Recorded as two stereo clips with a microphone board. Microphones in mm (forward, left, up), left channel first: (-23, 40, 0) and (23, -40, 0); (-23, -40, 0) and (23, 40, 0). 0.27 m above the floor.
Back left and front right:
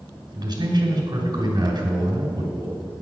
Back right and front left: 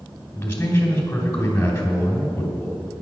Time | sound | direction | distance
0.3 | a man speaking | 55° right | 2 m